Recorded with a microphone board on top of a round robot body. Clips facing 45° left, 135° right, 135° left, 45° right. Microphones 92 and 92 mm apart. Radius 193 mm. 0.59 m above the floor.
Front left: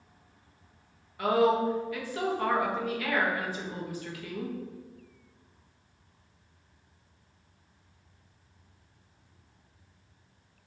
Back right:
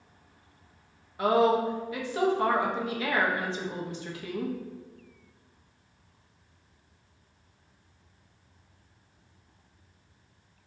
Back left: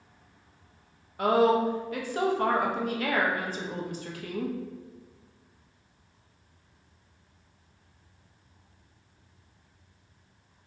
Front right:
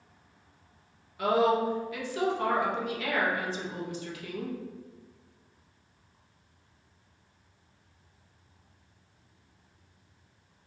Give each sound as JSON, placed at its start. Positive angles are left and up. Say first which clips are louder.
{"t": 1.2, "sound": "a woman speaking", "louder": "back right 1 dB, back left 2 dB", "azimuth_deg": 165, "distance_m": 1.1}